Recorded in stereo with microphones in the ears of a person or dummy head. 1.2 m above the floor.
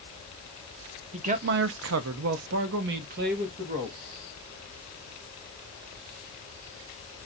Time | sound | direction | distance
1.1 | a man speaking | 30° right (ahead or behind) | 0.6 m